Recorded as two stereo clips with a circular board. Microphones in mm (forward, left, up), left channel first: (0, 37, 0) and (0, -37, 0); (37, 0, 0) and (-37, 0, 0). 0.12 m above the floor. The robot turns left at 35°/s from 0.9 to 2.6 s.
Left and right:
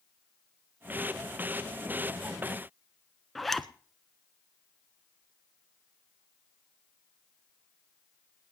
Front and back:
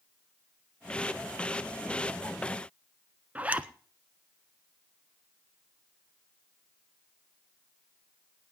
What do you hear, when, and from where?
3.4 s a zipper: 175° left, 0.6 m